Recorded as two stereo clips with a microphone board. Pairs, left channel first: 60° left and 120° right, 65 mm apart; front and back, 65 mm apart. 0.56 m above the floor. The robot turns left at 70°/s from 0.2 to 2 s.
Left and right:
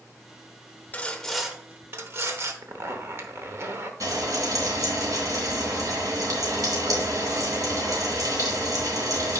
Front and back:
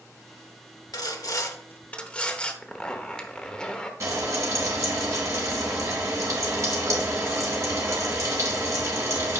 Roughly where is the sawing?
Ahead.